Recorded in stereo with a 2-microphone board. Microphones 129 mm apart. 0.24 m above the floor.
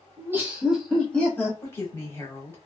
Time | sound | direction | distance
0.2 | laughter | 20° right (ahead or behind) | 1.2 m
1.6 | a woman speaking | 15° left (ahead or behind) | 1.1 m